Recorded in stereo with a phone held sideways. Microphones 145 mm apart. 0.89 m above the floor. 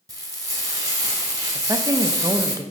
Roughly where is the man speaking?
Right.